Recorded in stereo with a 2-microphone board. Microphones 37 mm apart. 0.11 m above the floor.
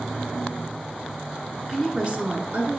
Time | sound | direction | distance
1.7 | a woman speaking | 20° right (ahead or behind) | 1.1 m